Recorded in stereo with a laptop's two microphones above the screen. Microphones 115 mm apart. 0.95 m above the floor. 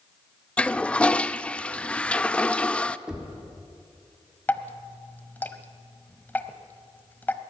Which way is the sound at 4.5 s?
15° left (ahead or behind).